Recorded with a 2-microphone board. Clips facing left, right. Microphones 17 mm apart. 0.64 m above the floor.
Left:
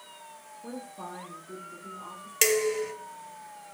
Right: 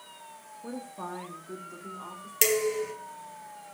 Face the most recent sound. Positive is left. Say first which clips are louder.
# left 1 dB
turn(degrees=20)  # may be behind; listen again after turning